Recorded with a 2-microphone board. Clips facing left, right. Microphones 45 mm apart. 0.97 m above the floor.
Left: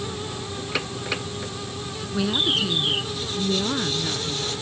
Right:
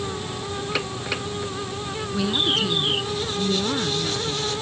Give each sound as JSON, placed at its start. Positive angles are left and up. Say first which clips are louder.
{"t": 2.1, "sound": "a woman speaking", "louder": "even", "side_deg": 5}